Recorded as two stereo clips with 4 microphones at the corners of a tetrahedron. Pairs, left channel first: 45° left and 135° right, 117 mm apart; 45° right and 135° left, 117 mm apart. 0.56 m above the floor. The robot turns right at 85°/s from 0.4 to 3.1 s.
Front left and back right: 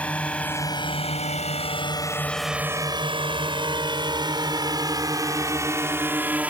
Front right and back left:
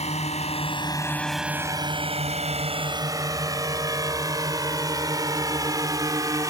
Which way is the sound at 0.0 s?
35° right.